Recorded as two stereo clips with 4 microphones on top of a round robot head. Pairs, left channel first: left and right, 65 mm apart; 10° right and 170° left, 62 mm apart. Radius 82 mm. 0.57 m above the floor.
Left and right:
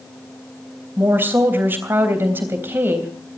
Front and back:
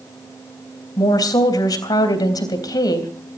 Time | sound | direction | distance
1.0 | a woman speaking | 30° right | 3.5 m